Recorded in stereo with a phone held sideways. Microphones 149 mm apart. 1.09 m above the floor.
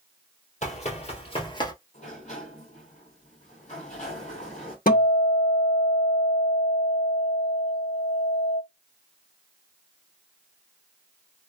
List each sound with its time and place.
0.6 s running footsteps: 50° left (ahead or behind), 1.7 m; by 1.7 s 30° left (ahead or behind), 1.2 m
1.9 s a sliding door: 55° left (ahead or behind), 1.6 m
4.9 s a guitar: 75° left (ahead or behind), 1.0 m